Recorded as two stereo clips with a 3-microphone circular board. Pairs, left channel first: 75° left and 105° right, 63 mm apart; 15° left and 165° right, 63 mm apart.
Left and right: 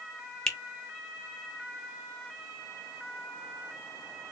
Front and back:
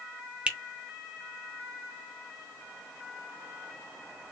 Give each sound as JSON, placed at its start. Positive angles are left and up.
{"t": 0.5, "sound": "a finger snap", "azimuth_deg": 145, "distance_m": 0.7}